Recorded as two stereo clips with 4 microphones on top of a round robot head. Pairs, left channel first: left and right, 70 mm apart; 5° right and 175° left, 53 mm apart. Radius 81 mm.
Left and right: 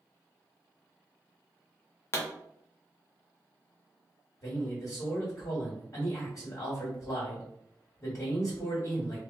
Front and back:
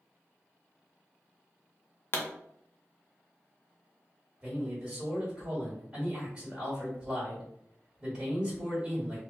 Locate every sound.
2.1 s a pop: 35° left, 0.5 m
4.4 s a man speaking: 105° left, 1.8 m